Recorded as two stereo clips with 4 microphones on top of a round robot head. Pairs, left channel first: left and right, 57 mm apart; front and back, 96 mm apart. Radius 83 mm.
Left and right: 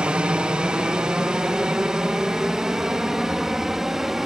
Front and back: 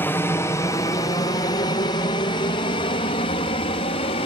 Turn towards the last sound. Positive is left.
turn(degrees=-5)